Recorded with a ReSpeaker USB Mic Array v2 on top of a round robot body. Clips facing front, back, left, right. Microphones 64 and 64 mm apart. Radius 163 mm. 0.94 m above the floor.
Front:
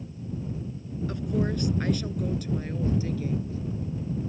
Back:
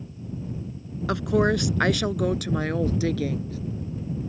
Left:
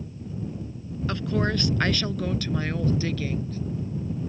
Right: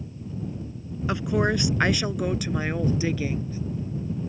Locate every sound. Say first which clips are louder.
1.1 s a woman speaking: back 8 dB, right 3 dB; 165° right